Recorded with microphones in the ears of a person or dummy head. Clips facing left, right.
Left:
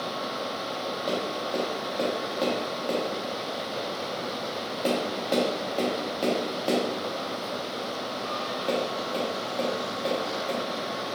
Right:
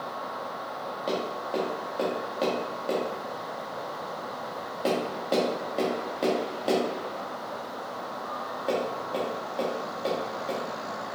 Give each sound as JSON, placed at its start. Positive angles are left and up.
{"t": 1.1, "sound": "tapping", "side_deg": -5, "distance_m": 1.1}